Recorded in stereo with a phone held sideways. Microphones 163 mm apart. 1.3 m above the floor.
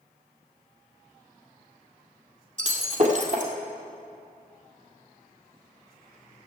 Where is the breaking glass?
50° right (ahead or behind), 2 m.